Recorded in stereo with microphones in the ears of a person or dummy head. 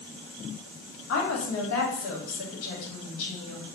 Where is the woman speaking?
80° left, 1.8 m.